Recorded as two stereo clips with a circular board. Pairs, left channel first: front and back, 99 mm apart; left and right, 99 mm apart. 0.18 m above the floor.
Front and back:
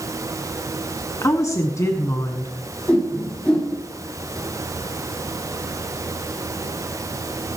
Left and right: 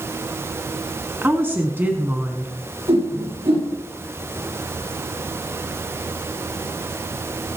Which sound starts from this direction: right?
A whoosh, at 2.9 s.